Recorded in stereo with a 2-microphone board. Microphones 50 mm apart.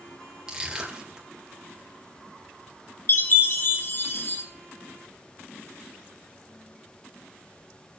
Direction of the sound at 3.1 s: 50° left (ahead or behind).